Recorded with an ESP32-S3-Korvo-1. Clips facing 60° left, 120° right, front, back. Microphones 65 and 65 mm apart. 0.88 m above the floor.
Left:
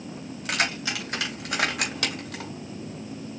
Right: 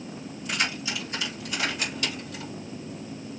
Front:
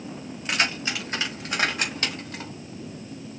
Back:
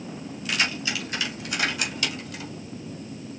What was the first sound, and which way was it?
Keys jangling, 55° left.